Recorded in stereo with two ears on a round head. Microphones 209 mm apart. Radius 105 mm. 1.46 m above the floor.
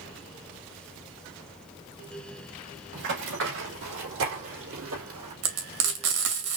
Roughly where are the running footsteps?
Right.